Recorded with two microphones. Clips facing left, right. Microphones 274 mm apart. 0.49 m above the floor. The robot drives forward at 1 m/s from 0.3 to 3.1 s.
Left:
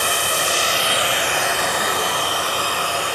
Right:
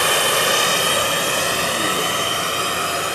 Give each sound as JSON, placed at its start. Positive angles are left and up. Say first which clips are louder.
{"t": 0.0, "sound": "running water", "louder": "right 4 dB", "side_deg": -70, "distance_m": 1.3}